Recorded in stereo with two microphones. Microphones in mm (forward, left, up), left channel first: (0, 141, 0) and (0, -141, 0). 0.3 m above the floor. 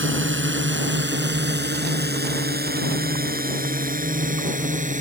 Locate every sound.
0.0 s a drone: 45° right (ahead or behind); by 5.0 s 25° right (ahead or behind)